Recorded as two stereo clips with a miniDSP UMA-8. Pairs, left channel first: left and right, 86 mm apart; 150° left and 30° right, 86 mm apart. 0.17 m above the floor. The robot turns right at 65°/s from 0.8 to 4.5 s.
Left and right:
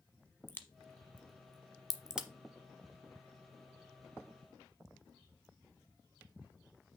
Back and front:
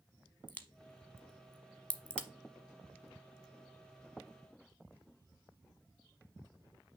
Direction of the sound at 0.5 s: 115° left.